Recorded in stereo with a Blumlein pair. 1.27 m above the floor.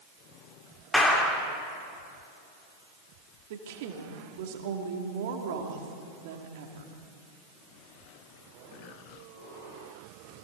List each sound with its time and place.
0.9 s a clap: 10° left, 3 m
3.5 s a woman speaking: 50° right, 2.5 m